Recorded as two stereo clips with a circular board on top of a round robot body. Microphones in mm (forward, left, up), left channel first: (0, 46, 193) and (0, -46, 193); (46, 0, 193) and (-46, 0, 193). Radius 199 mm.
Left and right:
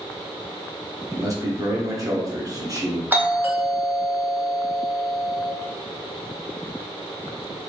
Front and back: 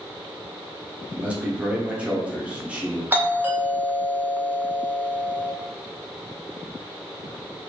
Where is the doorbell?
135° right, 1.3 m.